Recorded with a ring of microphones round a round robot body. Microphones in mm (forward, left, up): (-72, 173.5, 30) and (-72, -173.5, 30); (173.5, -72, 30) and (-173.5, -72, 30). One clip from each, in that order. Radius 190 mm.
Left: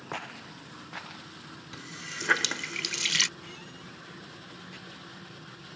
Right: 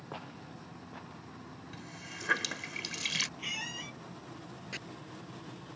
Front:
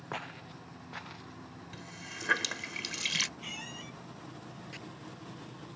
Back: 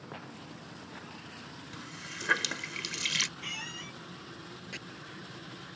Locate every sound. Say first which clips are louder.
0.1 s footsteps: left 8 dB, front 7 dB; 60° left; by 1.4 s 70° left
1.7 s a running tap: left 8 dB, back 2 dB; 100° left
3.4 s a squeak: right 8 dB, back 3 dB; 115° right
4.7 s chopping: right 8 dB, back 5 dB; 130° right